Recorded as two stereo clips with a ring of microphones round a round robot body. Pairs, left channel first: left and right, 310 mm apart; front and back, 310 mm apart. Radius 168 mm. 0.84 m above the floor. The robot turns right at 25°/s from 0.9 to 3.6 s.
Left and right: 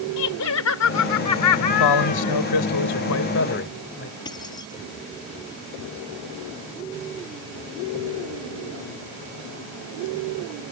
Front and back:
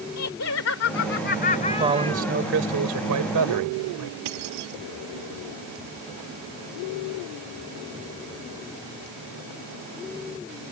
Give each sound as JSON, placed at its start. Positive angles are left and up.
{"t": 0.2, "sound": "laughter", "azimuth_deg": 50}
{"t": 1.7, "sound": "a man speaking", "azimuth_deg": 100}
{"t": 4.2, "sound": "keys jangling", "azimuth_deg": 170}